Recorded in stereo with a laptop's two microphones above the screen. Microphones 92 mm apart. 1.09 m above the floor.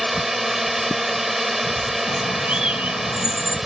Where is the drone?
Centre (ahead or behind).